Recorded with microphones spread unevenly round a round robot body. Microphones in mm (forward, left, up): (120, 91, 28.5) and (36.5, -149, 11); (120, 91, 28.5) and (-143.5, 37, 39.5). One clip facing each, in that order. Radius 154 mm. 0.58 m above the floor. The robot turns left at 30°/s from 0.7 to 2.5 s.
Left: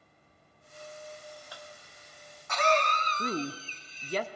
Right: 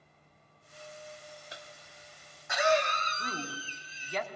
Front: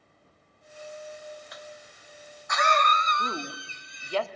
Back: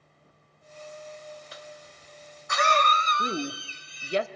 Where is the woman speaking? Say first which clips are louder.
Left 10 dB, back 5 dB; 125° left, 1.1 m.